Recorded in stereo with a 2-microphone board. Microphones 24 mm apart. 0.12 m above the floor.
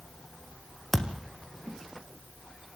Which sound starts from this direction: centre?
A thud, at 0.9 s.